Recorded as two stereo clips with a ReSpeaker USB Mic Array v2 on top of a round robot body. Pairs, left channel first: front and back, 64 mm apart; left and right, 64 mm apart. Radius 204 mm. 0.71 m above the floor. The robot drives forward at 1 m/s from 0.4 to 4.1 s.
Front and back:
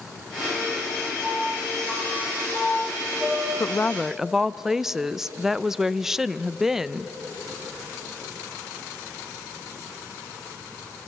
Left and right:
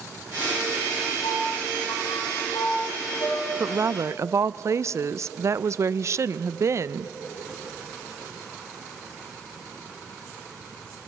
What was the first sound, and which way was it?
A piano, 75° left.